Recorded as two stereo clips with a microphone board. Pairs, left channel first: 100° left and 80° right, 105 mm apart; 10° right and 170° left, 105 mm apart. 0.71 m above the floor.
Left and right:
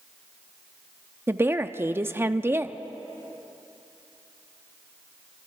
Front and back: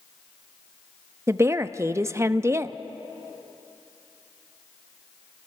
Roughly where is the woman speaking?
Behind right.